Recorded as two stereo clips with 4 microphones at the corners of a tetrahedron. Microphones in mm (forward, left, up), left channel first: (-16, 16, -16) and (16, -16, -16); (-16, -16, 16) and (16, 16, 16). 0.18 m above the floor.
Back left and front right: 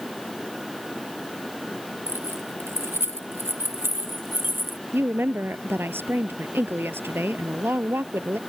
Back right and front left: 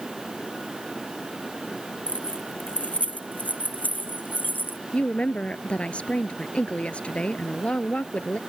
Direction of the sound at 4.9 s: 75° right.